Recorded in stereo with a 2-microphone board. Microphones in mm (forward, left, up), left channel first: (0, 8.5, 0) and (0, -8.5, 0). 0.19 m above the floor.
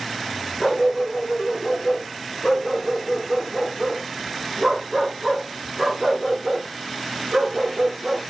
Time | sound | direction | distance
0.6 | a dog barking | centre (ahead or behind) | 6.5 m